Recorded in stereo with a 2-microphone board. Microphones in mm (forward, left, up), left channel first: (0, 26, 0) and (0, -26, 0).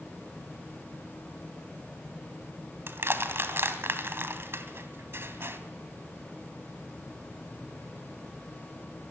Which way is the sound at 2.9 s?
55° right (ahead or behind).